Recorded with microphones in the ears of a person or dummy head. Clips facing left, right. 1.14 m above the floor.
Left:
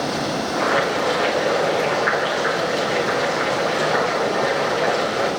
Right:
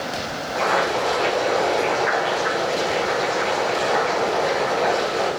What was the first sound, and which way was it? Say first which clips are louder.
Boiling: right 1 dB; 15° left (ahead or behind).